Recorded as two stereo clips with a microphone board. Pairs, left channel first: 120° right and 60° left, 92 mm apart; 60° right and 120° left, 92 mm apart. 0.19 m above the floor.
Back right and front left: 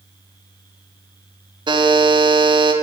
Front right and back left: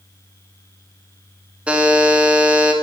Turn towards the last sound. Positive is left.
turn(degrees=45)